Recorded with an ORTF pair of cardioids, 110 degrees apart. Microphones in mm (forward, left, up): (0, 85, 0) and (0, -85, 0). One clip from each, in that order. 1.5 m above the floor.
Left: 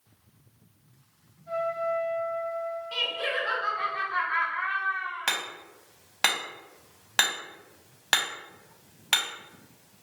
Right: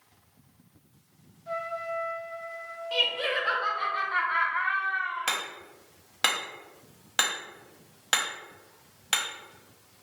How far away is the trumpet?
About 0.8 m.